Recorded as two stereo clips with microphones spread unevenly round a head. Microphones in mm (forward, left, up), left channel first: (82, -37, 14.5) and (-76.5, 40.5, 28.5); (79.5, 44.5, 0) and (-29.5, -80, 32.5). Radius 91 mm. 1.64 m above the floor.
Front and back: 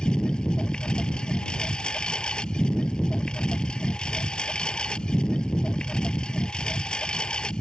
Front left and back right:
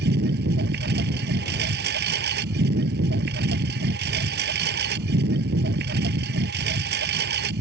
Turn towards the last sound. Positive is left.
turn(degrees=-110)